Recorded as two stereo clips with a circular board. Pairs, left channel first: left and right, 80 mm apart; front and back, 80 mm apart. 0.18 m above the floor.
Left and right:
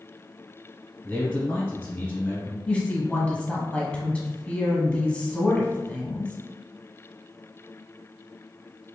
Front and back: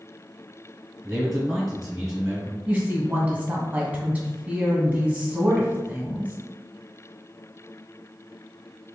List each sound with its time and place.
1.0 s a man speaking: 105° left, 1.8 m
2.7 s a woman speaking: 140° left, 1.2 m